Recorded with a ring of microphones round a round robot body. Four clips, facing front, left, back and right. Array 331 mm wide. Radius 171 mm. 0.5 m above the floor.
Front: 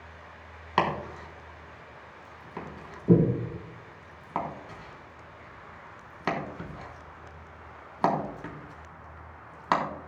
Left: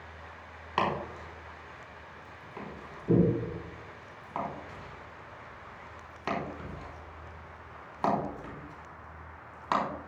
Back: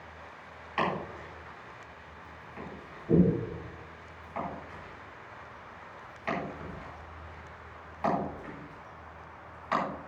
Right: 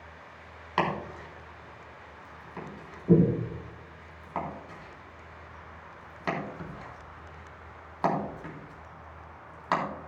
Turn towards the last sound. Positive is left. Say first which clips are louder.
# right 1 dB, front 4 dB
turn(degrees=-5)